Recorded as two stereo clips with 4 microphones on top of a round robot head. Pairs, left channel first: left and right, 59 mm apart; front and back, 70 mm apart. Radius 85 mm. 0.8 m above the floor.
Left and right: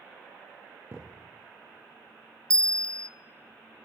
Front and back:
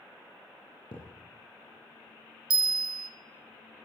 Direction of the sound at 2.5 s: 165° left.